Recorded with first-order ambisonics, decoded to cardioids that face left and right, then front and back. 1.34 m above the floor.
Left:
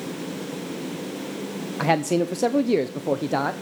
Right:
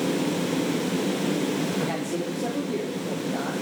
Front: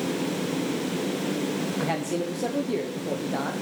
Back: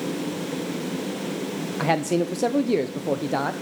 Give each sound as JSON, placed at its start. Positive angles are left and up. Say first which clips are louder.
{"t": 1.8, "sound": "a man speaking", "louder": "left 7 dB, back 9 dB", "azimuth_deg": 120, "distance_m": 0.6}